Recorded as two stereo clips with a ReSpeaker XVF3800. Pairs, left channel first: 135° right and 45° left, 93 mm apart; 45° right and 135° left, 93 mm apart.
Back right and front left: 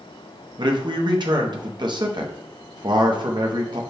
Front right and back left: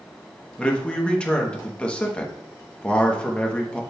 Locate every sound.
0.6 s a man speaking: 30° left, 0.8 m